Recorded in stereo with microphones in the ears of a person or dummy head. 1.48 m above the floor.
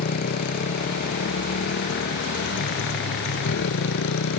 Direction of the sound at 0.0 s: 50° left (ahead or behind).